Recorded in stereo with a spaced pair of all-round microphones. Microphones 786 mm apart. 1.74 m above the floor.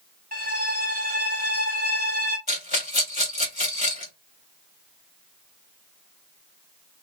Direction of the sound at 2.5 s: 30° left (ahead or behind).